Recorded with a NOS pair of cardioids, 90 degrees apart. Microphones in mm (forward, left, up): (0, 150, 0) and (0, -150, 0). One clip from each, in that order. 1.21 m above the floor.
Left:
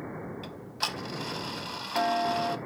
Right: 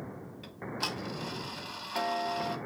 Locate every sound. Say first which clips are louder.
0.4 s ticking: left 1 dB; 20° left, 0.8 m